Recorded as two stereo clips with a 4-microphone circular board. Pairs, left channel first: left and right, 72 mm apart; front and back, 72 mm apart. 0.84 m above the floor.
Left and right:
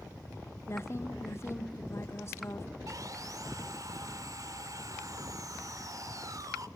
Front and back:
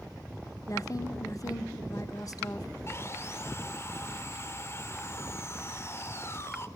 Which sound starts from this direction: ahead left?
A woman speaking, at 0.7 s.